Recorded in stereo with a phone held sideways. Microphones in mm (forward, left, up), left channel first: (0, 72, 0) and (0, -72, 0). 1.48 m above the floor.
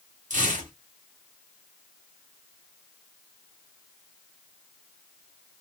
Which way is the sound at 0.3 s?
60° right (ahead or behind).